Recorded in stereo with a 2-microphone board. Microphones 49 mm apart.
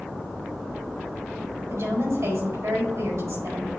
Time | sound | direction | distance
1.7 | a woman speaking | 75° right (ahead or behind) | 4.5 m